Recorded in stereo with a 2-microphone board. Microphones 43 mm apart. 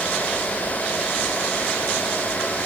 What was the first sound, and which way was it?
Only background noise.